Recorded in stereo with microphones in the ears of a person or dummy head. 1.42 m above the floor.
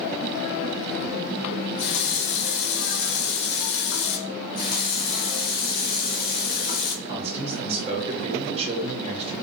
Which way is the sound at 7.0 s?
30° right (ahead or behind).